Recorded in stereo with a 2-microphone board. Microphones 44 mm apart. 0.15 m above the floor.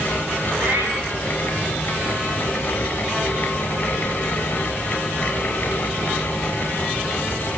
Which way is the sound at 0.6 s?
60° right (ahead or behind).